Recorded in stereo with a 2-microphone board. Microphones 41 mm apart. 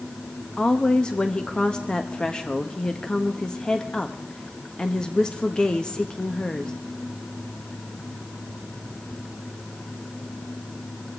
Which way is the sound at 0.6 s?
20° left (ahead or behind).